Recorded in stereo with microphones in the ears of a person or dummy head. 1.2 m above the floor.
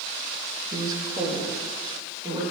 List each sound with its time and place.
0.7 s a woman speaking: 25° right (ahead or behind), 1.4 m